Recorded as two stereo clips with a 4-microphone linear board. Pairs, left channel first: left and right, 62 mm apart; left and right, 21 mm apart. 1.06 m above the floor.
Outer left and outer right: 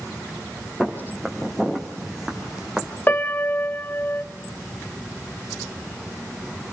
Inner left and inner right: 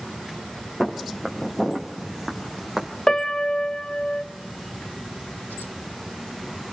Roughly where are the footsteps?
Centre.